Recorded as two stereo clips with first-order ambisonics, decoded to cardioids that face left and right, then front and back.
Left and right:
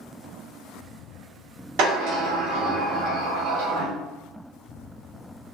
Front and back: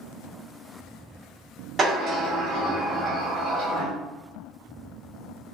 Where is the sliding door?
105° right, 1.1 m.